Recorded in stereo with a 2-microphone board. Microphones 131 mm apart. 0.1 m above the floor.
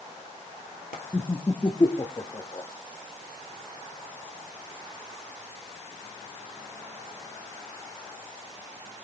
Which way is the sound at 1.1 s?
35° left (ahead or behind).